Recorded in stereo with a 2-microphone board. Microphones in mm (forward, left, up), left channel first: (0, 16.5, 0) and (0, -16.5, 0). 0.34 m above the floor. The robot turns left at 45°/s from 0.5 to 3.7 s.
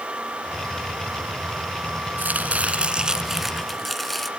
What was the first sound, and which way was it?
Chopping, 115° right.